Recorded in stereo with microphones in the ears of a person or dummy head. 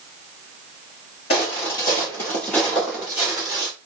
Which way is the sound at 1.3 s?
30° left (ahead or behind).